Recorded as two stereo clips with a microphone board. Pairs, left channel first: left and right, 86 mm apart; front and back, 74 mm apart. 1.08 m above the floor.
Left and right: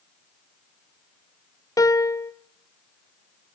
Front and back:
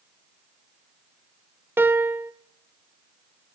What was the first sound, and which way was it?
A piano, 125° left.